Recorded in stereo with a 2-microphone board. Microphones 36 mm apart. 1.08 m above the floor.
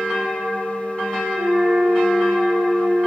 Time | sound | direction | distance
1.3 | a flute | 50° right (ahead or behind) | 1.3 m